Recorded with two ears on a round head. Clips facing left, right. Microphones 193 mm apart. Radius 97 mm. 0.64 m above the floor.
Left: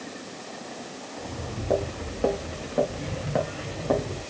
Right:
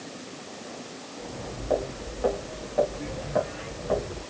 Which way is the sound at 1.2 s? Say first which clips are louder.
Left 1 dB; 45° left (ahead or behind).